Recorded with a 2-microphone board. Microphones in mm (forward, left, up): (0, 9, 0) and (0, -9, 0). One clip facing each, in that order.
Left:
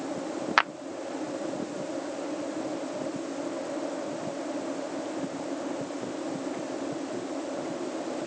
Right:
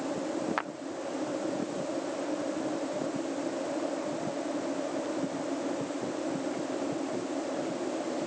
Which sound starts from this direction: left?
A clap, at 0.6 s.